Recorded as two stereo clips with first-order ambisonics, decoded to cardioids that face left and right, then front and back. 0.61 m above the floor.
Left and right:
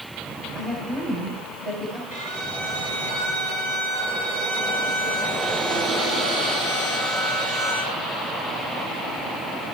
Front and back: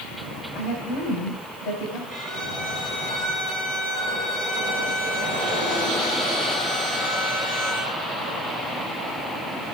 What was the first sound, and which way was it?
A woman speaking, 30° right.